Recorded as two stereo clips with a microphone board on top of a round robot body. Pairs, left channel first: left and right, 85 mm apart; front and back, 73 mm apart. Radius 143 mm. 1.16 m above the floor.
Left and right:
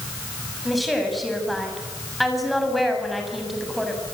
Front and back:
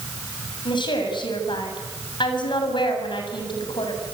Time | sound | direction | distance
0.7 | a woman speaking | straight ahead | 7.5 m